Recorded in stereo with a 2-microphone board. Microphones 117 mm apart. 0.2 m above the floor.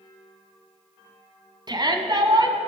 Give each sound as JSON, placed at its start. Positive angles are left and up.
{"t": 1.7, "sound": "a shout", "side_deg": -40, "distance_m": 1.6}